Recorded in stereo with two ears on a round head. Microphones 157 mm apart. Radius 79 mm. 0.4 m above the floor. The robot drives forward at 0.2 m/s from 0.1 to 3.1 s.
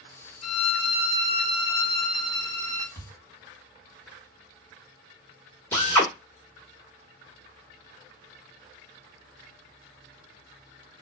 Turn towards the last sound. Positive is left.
turn(degrees=15)  # may be behind; listen again after turning